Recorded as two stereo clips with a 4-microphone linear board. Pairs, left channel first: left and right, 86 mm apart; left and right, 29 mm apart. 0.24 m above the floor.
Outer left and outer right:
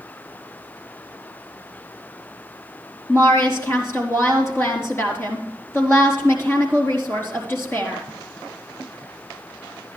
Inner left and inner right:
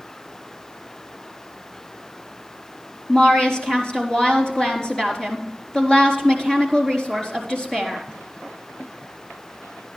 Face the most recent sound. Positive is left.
turn(degrees=30)  # may be behind; listen again after turning